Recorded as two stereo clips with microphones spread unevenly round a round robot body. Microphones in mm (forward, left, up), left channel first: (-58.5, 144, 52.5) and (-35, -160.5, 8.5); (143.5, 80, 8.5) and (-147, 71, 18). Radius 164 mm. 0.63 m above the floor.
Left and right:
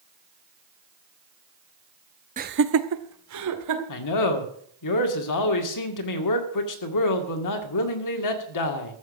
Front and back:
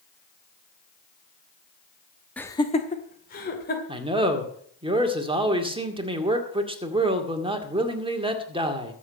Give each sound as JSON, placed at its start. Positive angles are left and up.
{"t": 2.4, "sound": "laughter", "azimuth_deg": -80, "distance_m": 0.8}
{"t": 3.9, "sound": "a man speaking", "azimuth_deg": 110, "distance_m": 2.0}